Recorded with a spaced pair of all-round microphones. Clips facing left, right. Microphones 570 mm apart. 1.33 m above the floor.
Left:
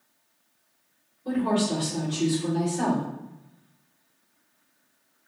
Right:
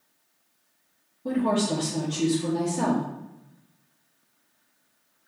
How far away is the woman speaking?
About 1.0 m.